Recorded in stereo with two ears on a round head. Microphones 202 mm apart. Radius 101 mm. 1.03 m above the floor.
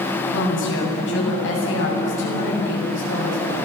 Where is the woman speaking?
60° left (ahead or behind), 7.5 m.